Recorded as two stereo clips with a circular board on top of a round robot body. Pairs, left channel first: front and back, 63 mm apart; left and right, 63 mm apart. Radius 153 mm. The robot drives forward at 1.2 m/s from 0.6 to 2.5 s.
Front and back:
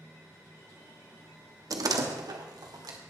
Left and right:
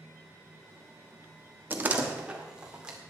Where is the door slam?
150° right, 1.0 m; by 3.0 s 165° right, 1.9 m.